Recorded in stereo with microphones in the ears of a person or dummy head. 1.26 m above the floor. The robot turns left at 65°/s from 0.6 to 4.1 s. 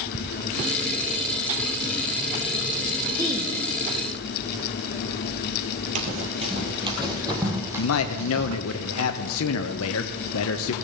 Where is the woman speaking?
25° right (ahead or behind), 1.6 m; by 3.5 s centre (ahead or behind), 1.6 m.